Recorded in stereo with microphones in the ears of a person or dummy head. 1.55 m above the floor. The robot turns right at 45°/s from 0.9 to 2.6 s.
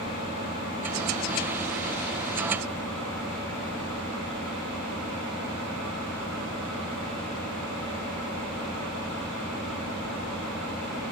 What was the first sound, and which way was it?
An engine running, 90° left.